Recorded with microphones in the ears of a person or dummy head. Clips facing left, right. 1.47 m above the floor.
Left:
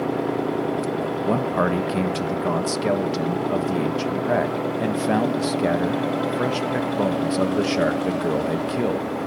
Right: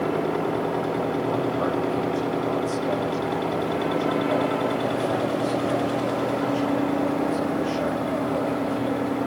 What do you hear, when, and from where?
1.2 s a man speaking: 75° left (ahead or behind), 1.3 m